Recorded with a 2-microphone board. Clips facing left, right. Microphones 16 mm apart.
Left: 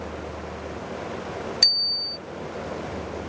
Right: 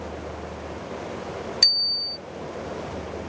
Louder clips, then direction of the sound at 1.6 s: Even; centre (ahead or behind).